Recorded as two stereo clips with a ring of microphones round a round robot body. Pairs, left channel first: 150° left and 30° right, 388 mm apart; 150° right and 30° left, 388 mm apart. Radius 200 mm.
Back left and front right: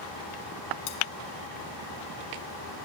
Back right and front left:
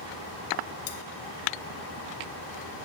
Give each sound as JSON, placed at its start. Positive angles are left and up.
{"t": 0.9, "sound": "cutlery clinking", "azimuth_deg": 155, "distance_m": 1.3}